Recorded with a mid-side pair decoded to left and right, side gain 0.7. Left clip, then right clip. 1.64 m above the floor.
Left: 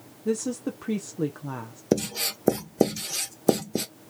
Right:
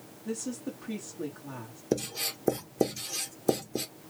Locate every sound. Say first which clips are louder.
0.2 s a woman speaking: left 8 dB; 45° left, 1.0 m
1.9 s writing: left 5 dB; 30° left, 1.2 m